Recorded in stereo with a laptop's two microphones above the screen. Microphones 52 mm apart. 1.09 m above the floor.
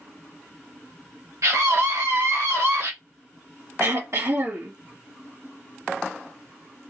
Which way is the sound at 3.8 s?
65° right (ahead or behind).